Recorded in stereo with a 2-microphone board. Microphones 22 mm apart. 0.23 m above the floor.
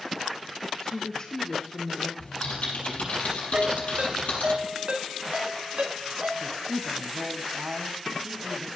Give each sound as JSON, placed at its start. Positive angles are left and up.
{"t": 0.8, "sound": "a woman speaking", "side_deg": 40, "distance_m": 3.5}
{"t": 2.2, "sound": "typing on a keyboard", "side_deg": 75, "distance_m": 6.5}
{"t": 3.5, "sound": "a ringtone", "side_deg": -60, "distance_m": 1.5}
{"t": 6.4, "sound": "a man speaking", "side_deg": -45, "distance_m": 1.8}